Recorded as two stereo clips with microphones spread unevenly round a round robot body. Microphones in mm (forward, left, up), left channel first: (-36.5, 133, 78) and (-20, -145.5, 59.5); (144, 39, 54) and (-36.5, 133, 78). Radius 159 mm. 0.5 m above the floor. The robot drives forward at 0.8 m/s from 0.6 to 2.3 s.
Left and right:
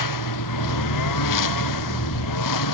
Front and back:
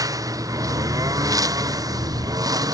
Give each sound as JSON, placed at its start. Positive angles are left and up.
{"t": 0.0, "sound": "a lawn mower", "azimuth_deg": 80}